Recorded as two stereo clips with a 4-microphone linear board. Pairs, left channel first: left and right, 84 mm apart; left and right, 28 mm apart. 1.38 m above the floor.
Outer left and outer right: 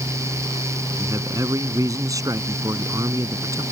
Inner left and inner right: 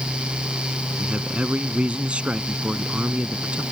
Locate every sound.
1.0 s a man speaking: 40° right (ahead or behind)